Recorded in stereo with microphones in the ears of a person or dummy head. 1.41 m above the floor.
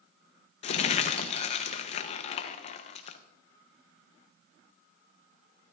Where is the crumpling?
40° left (ahead or behind), 0.7 m.